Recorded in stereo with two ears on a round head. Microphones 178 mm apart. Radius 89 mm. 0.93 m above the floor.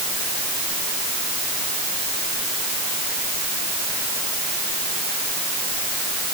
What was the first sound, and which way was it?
Only background noise.